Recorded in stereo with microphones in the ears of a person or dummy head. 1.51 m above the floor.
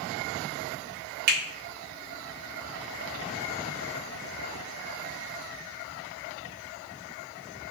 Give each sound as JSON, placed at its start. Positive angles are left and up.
{"t": 1.3, "sound": "a finger snap", "side_deg": -50, "distance_m": 1.5}